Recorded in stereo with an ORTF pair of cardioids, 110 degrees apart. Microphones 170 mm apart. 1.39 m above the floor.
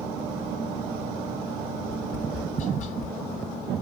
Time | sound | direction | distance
1.8 | tapping | 45° left | 0.7 m